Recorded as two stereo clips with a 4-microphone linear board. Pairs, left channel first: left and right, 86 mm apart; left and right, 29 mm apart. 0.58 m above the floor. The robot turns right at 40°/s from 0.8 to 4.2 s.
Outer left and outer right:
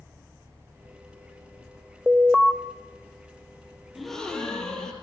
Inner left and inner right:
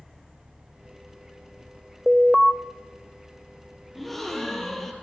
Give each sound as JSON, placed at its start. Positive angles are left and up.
{"t": 2.1, "sound": "an alarm", "side_deg": -15, "distance_m": 1.2}
{"t": 4.0, "sound": "a gasp", "side_deg": -5, "distance_m": 4.5}